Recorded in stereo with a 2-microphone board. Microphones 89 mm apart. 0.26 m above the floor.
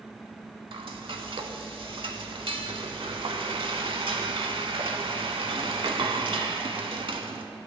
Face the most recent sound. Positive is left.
turn(degrees=-75)  # may be behind; listen again after turning